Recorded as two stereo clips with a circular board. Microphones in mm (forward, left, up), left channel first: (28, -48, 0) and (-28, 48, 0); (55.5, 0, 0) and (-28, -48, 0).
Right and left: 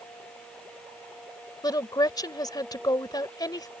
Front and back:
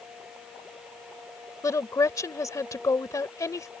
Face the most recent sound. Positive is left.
turn(degrees=-15)